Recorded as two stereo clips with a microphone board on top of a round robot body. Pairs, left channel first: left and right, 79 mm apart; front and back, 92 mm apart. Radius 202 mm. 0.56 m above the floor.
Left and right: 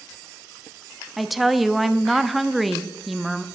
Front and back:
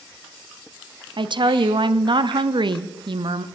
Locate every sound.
1.2 s a woman speaking: straight behind, 1.0 m